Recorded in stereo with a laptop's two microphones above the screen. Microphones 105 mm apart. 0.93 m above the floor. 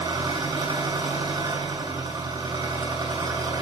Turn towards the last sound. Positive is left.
turn(degrees=-40)  # may be behind; listen again after turning